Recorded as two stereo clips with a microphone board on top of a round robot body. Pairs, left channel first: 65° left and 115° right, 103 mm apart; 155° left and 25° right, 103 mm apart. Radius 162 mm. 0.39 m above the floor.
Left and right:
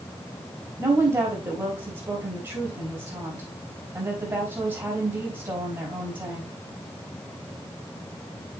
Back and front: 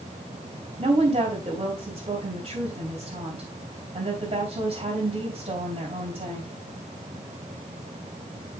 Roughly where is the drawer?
No drawer in this recording.